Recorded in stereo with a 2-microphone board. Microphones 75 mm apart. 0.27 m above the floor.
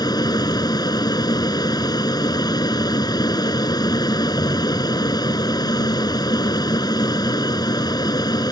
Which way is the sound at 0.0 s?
60° left (ahead or behind).